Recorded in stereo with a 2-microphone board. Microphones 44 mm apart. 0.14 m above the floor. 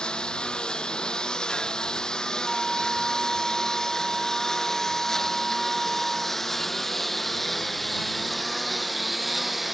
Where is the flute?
15° right (ahead or behind).